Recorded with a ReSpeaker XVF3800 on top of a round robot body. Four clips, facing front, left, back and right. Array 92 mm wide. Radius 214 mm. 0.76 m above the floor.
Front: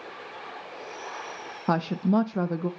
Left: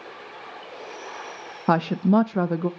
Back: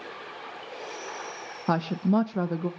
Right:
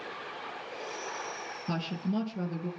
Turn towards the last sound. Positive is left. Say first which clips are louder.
# left 14 dB, even
turn(degrees=90)